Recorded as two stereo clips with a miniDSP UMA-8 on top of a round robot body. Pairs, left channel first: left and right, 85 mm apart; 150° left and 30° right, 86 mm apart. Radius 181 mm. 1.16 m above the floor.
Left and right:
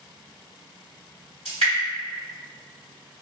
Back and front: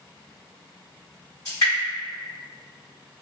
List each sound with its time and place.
1.4 s dripping: 100° left, 0.7 m